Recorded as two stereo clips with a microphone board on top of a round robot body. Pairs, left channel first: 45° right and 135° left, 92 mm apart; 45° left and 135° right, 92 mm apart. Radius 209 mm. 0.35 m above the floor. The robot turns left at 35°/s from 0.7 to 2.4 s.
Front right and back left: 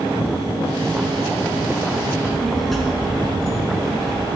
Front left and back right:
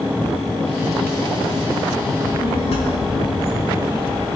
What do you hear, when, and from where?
2.1 s a child speaking: 55° left, 4.5 m; by 4.2 s 45° left, 4.5 m